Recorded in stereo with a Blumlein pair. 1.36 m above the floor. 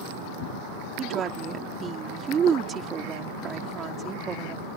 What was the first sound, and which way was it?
A woman speaking, 25° right.